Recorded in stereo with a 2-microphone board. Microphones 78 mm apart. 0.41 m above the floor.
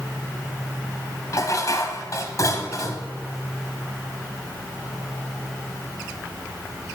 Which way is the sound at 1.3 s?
50° left (ahead or behind).